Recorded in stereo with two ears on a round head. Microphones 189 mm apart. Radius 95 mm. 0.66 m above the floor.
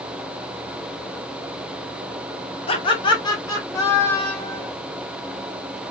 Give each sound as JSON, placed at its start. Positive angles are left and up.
{"t": 2.7, "sound": "laughter", "side_deg": 25, "distance_m": 1.3}